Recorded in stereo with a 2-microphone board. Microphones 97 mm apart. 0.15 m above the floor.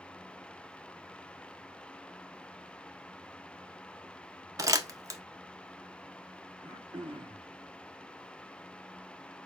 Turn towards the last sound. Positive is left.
turn(degrees=-50)  # may be behind; listen again after turning